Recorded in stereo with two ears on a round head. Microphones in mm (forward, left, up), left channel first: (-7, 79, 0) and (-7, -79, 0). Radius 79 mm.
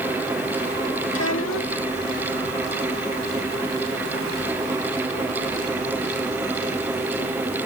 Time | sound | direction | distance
1.1 | a child speaking | 85° left | ?